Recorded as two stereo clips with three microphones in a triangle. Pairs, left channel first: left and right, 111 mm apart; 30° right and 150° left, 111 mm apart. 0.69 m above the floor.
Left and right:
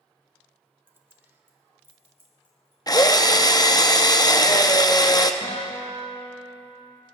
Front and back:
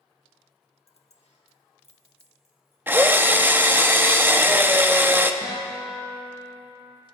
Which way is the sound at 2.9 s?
95° left.